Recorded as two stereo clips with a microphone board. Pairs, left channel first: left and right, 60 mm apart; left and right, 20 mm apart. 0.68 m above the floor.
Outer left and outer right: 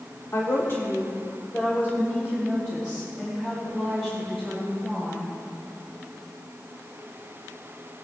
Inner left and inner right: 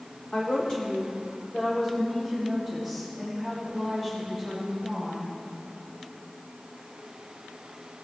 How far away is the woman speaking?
About 1.3 m.